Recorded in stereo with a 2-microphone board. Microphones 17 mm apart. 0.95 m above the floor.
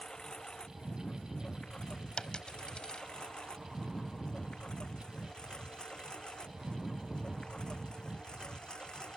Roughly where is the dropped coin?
Left.